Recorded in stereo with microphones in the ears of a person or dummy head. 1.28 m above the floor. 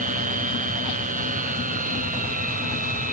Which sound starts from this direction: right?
A machine running, at 0.0 s.